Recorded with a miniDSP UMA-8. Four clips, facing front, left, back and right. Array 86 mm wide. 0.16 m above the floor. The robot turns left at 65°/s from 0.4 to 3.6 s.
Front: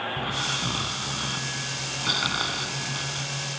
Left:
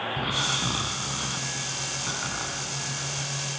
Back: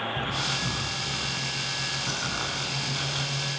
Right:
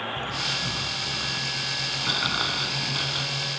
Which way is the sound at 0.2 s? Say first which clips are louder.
Left 2 dB, front 1 dB; 75° left.